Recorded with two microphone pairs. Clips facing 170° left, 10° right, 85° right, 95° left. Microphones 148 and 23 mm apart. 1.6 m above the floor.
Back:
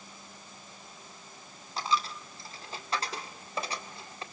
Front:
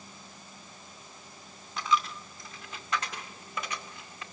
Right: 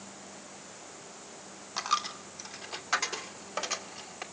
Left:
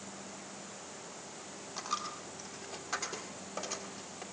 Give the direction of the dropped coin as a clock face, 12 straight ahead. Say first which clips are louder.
Front 2 dB, right 7 dB; 5 o'clock.